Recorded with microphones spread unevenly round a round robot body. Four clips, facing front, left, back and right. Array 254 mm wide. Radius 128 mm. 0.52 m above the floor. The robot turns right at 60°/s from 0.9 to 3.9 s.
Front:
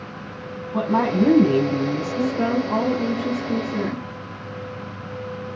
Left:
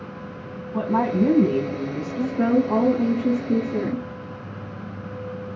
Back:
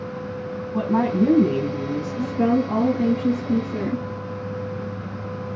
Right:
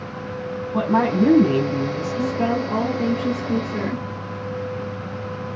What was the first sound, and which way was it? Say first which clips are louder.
A woman speaking: right 2 dB, front 1 dB; 60° right.